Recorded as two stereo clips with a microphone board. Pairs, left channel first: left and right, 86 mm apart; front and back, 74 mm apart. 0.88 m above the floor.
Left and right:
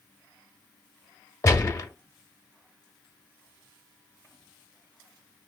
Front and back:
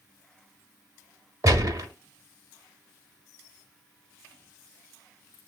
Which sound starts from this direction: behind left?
A gunshot, at 1.4 s.